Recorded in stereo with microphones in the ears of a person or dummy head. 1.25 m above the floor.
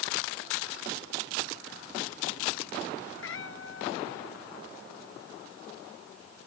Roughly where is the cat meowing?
Left.